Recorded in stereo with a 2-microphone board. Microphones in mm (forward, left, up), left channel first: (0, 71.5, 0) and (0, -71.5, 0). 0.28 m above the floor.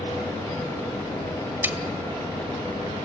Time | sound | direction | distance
1.6 | a snare drum | 15° right (ahead or behind) | 1.5 m